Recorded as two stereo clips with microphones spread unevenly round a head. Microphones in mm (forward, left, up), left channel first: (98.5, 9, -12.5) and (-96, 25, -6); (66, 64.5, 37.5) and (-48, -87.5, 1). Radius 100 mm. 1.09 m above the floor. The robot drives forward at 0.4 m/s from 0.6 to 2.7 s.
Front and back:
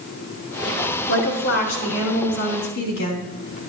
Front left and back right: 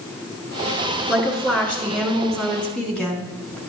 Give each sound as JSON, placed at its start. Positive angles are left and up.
{"t": 1.1, "sound": "a woman speaking", "azimuth_deg": -30, "distance_m": 4.5}